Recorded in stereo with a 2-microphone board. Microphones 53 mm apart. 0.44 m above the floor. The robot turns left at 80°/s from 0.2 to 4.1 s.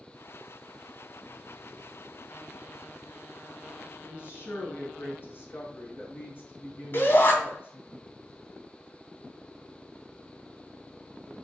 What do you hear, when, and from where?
4.0 s a woman speaking: 50° left (ahead or behind), 4.5 m; by 7.9 s 45° left (ahead or behind), 4.5 m
6.9 s a shout: 45° left (ahead or behind), 3 m